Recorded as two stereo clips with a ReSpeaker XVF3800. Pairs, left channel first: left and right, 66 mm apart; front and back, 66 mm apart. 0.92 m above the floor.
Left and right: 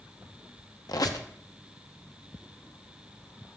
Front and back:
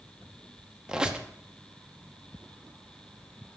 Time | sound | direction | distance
0.9 | a squeak | 105° left | 0.7 m